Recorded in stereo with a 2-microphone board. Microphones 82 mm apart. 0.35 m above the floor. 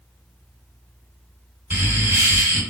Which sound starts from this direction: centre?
Laughter, at 1.7 s.